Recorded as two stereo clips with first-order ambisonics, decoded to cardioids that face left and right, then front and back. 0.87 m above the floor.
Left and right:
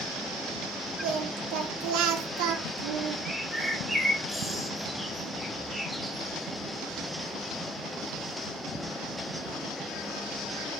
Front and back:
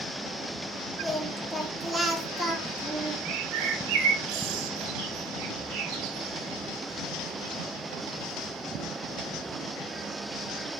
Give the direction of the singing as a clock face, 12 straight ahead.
3 o'clock.